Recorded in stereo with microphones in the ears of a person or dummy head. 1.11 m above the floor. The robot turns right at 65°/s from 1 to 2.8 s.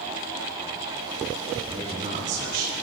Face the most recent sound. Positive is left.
turn(degrees=-85)